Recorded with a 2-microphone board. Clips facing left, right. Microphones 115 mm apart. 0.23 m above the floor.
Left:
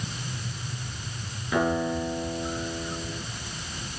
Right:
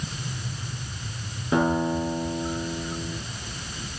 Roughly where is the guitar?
Right.